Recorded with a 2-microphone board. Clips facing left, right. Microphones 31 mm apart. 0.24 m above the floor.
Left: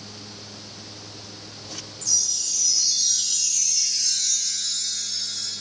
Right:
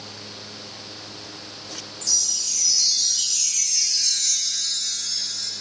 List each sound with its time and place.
2.0 s a chime: 60° right (ahead or behind), 0.9 m